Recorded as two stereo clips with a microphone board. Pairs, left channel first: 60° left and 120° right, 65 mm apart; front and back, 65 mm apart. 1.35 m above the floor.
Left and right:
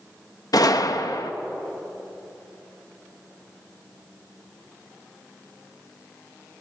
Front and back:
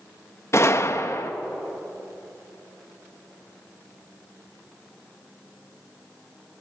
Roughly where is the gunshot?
Ahead left.